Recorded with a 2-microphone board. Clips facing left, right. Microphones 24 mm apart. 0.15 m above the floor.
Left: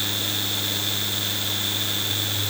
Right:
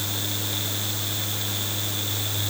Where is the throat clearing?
No throat clearing in this recording.